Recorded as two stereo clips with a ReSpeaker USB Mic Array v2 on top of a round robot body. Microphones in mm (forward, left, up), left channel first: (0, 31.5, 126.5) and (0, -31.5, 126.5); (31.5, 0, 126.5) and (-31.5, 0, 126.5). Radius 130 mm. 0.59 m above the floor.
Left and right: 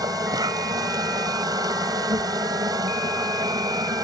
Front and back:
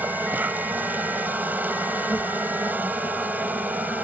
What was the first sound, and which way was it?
An insect, 115° right.